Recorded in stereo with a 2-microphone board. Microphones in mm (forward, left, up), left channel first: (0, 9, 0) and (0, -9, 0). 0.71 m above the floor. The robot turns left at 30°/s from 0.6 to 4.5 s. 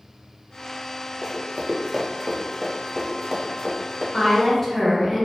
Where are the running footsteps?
35° right (ahead or behind), 0.8 m.